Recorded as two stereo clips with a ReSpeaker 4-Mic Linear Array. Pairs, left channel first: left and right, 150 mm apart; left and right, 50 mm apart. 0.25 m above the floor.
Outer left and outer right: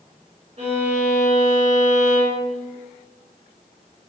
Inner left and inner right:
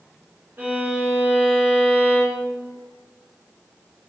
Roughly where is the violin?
Right.